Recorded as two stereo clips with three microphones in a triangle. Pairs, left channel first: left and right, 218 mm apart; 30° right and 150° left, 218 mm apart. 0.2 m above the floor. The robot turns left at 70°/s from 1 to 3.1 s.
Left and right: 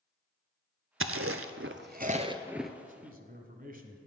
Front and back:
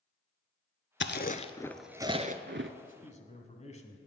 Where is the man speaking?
55° right, 1.3 m; by 4.0 s 70° right, 1.3 m.